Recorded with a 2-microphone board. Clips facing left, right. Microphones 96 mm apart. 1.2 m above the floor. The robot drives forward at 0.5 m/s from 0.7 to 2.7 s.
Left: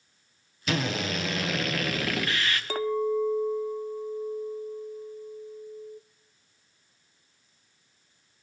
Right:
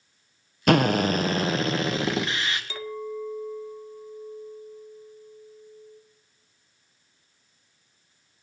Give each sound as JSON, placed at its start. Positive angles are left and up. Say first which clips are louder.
{"t": 0.7, "sound": "a drill", "louder": "right 9 dB", "side_deg": -55, "distance_m": 0.5}
{"t": 2.7, "sound": "a clink", "louder": "left 8 dB", "side_deg": 50, "distance_m": 0.5}